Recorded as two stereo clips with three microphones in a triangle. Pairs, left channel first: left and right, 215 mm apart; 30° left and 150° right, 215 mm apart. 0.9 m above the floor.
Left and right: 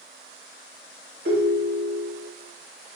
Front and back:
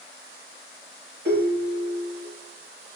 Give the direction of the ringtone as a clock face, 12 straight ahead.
4 o'clock.